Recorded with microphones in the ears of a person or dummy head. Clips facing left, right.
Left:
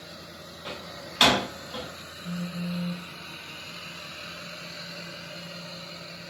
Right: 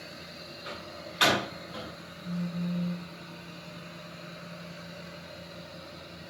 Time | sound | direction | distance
0.7 | a door slam | 60° left (ahead or behind) | 7.5 m
2.2 | a phone buzzing | 65° left (ahead or behind) | 4 m